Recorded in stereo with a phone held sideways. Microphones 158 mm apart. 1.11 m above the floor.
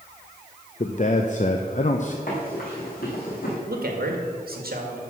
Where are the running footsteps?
65° left (ahead or behind), 4 m; by 3.6 s 70° left (ahead or behind), 3.5 m.